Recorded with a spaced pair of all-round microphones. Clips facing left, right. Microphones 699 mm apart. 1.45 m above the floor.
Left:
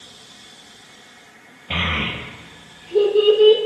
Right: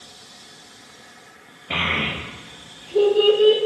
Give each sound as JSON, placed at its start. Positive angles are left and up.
{"t": 1.7, "sound": "a child speaking", "side_deg": 25, "distance_m": 0.8}